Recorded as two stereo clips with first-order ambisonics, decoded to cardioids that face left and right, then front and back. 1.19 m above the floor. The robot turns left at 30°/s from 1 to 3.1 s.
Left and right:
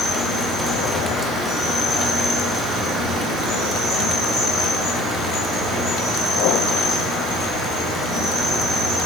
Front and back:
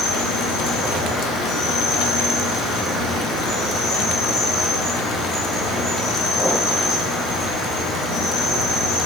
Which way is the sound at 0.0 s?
25° left.